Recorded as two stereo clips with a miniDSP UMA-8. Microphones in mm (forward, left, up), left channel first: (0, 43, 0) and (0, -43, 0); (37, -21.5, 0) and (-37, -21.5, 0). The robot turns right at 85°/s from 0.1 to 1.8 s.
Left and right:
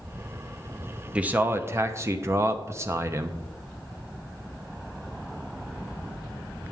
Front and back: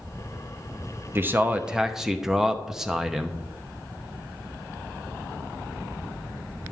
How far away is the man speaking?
About 0.8 m.